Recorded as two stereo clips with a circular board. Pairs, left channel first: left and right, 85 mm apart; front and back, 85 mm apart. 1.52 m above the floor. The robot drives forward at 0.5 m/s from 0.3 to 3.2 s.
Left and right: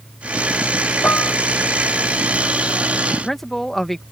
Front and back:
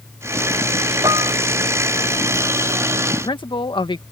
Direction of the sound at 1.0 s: 155° left.